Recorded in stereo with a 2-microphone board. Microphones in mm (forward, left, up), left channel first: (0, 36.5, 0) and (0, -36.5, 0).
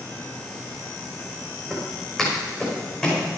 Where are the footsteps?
10° left (ahead or behind), 4.5 m; by 3.2 s 15° left (ahead or behind), 6 m.